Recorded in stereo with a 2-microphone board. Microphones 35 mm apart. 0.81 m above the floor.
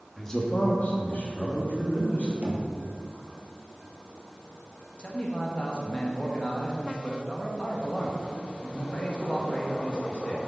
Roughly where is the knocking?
Right.